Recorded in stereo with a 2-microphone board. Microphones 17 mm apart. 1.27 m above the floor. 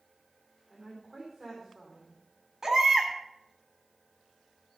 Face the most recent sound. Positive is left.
turn(degrees=-25)  # may be behind; listen again after turning